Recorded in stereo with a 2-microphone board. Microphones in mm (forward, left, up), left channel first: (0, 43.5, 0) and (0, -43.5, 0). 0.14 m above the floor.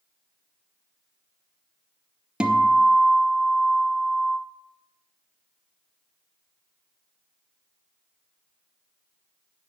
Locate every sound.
2.4 s a guitar: 10° right (ahead or behind), 0.8 m